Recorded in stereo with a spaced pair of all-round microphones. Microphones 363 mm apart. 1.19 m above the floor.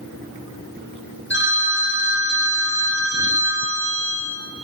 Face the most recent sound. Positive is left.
turn(degrees=30)  # may be behind; listen again after turning